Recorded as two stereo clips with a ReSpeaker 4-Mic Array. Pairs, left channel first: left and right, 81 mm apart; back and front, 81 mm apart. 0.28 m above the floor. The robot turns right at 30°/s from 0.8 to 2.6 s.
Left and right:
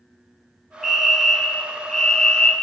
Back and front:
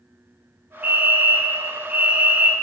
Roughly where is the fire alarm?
Ahead.